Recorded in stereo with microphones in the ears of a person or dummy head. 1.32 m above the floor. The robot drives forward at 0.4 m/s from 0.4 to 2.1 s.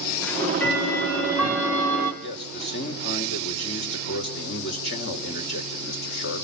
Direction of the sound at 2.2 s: 55° left (ahead or behind).